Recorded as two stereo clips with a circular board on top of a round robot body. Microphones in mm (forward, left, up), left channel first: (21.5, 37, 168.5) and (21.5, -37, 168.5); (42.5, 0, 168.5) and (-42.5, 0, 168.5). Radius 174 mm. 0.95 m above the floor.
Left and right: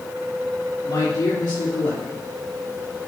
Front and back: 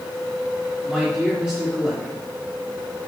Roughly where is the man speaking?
Left.